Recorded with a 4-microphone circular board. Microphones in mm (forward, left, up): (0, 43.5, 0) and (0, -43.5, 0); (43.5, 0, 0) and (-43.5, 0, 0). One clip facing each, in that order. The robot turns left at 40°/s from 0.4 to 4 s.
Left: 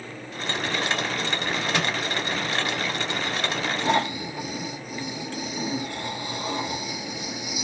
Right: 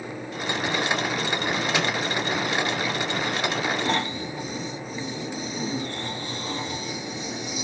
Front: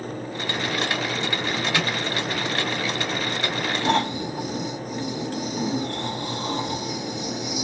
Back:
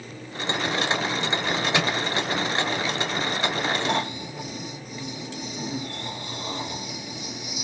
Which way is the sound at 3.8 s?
20° left.